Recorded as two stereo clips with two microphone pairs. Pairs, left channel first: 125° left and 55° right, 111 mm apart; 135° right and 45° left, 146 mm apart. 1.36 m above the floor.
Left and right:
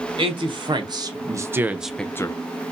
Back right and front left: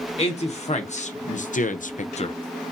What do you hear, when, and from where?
0.2 s a man speaking: 95° right, 1.3 m; by 2.4 s 175° left, 0.5 m